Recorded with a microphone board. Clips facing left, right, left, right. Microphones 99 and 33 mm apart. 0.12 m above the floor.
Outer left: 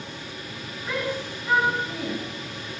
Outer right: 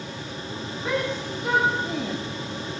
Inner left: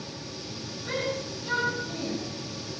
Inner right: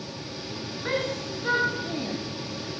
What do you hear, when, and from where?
0.8 s a shout: 70° right (ahead or behind), 7 m; by 2.1 s 75° right (ahead or behind), 7.5 m